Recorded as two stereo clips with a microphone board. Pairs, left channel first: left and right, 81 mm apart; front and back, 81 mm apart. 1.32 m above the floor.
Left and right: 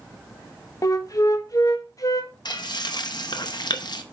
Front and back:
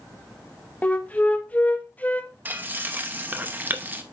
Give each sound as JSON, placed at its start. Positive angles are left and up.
{"t": 0.8, "sound": "a flute", "azimuth_deg": 65, "distance_m": 0.7}
{"t": 2.5, "sound": "frying", "azimuth_deg": 115, "distance_m": 0.8}